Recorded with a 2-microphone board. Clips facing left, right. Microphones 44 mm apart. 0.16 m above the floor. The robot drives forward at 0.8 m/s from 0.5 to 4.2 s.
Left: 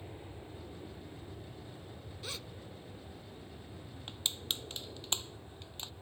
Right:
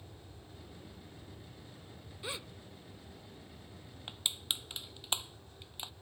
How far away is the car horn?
No car horn in this recording.